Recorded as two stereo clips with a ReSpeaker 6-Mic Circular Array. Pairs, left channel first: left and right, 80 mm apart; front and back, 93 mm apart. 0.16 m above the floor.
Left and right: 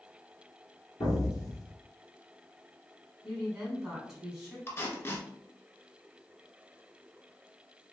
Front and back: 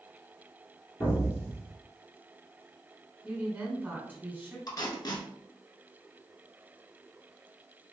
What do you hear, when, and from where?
1.0 s an explosion: 60° left, 1.0 m
3.2 s a woman speaking: 165° right, 1.4 m
4.7 s tape being pulled: 35° left, 0.8 m